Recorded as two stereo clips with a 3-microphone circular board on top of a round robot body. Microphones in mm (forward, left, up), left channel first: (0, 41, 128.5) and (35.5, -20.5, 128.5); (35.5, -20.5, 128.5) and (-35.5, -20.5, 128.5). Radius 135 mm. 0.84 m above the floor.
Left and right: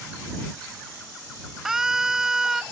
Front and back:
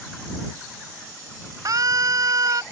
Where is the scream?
145° right.